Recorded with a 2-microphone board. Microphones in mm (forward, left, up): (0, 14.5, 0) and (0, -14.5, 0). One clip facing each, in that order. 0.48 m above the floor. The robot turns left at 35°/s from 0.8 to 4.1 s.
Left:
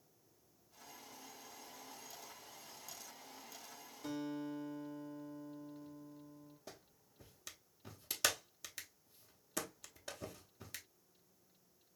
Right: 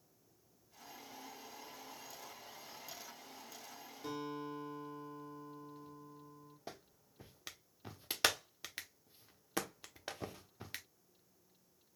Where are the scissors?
I don't hear scissors.